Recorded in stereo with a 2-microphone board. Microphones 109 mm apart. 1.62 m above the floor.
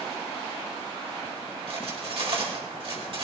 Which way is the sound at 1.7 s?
55° right (ahead or behind).